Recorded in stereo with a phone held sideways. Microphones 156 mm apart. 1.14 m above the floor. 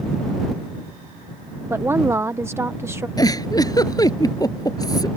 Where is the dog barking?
No dog barking in this recording.